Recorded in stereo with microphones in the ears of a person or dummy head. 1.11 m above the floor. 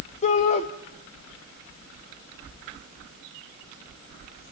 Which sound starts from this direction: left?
A shout, at 0.2 s.